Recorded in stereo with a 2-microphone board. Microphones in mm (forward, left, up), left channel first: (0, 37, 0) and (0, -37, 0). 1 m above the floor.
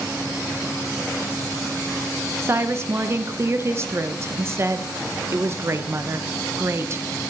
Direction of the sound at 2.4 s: 35° right (ahead or behind).